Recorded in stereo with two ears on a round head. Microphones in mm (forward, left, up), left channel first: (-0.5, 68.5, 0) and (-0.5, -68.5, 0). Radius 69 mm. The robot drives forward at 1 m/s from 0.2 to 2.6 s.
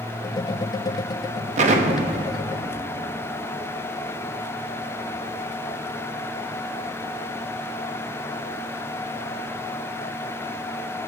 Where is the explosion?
45° right (ahead or behind), 0.6 m; by 5.3 s 20° right (ahead or behind), 1.1 m.